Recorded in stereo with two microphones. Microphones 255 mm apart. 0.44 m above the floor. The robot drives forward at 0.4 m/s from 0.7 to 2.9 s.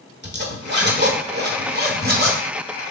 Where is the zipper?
45° right (ahead or behind), 1.6 m; by 2.4 s 35° right (ahead or behind), 1.8 m.